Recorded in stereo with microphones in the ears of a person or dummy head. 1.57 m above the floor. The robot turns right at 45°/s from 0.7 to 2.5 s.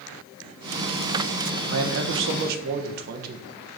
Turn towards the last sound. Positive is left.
turn(degrees=-55)